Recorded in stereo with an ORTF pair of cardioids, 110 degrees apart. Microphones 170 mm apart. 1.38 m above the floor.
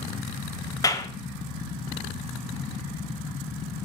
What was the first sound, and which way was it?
A clap, 20° left.